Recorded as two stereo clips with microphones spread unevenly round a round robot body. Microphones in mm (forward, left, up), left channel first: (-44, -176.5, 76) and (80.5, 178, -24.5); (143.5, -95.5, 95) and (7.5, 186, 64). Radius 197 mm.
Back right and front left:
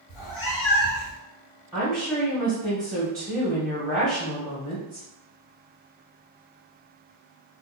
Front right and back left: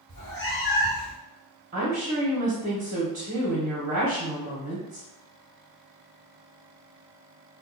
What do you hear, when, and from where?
0.1 s a cat meowing: 125° right, 1.5 m; by 1.2 s 100° right, 1.1 m
1.7 s a woman speaking: 135° left, 0.9 m